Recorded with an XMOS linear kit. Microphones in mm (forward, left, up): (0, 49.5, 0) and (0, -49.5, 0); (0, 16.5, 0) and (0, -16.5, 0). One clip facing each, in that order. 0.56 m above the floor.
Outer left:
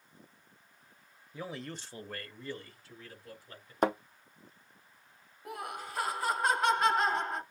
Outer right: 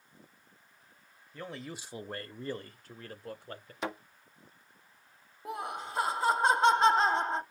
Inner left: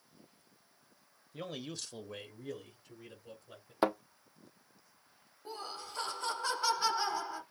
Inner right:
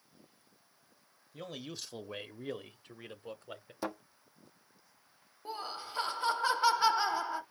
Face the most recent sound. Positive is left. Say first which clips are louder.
# outer right 3 dB, inner right 3 dB
turn(degrees=-25)  # may be behind; listen again after turning